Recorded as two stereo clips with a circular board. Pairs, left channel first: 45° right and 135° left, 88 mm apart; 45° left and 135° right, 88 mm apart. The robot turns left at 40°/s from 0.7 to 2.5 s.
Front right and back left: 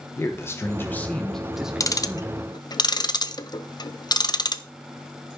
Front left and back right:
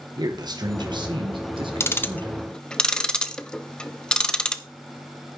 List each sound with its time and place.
0.2 s a man speaking: 105° right, 1.2 m; by 2.4 s 170° right, 1.2 m
1.8 s ticking: 5° right, 0.7 m; by 4.6 s 35° right, 0.7 m